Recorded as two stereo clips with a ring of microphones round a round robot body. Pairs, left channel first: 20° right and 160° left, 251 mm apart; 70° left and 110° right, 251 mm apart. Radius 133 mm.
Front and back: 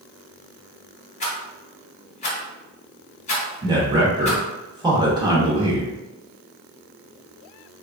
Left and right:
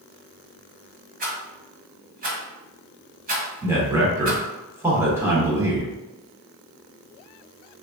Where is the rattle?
70° right, 1.2 m.